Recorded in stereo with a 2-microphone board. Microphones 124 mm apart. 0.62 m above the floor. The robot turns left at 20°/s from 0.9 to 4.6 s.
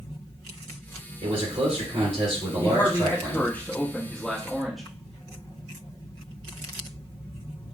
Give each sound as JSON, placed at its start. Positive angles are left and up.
{"t": 1.2, "sound": "a man speaking", "azimuth_deg": -85, "distance_m": 2.5}
{"t": 2.6, "sound": "a man speaking", "azimuth_deg": 40, "distance_m": 1.1}